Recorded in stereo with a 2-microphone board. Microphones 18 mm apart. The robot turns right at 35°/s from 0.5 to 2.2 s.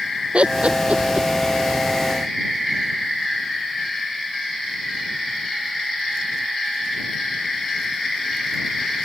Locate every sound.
0.3 s laughter: 65° right (ahead or behind); by 1.3 s 85° right